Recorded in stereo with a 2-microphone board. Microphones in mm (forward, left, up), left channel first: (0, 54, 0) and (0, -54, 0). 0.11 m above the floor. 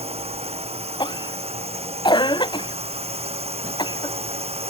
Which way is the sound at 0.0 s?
70° right (ahead or behind).